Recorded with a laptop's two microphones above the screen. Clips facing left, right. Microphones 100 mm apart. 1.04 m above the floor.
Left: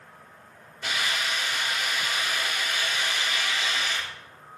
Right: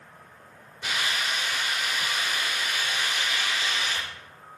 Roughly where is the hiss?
Centre.